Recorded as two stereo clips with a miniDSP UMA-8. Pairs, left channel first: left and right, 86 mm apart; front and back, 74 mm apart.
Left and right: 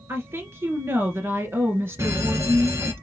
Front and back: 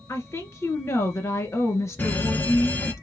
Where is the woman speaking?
40° right, 2 m.